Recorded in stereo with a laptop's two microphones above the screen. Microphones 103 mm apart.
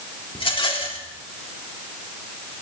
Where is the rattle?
60° left (ahead or behind), 3 m.